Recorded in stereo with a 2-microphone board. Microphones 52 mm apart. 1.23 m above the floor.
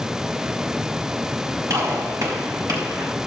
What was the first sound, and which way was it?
A gunshot, 85° right.